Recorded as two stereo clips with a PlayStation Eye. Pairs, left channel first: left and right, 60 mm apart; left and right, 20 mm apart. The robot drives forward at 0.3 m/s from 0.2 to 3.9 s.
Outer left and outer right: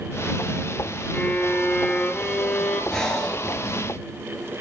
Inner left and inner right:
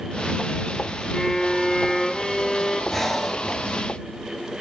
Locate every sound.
1.1 s a violin: 25° left (ahead or behind), 1.0 m; by 2.8 s 20° left (ahead or behind), 1.5 m
2.9 s breathing: 10° left (ahead or behind), 0.9 m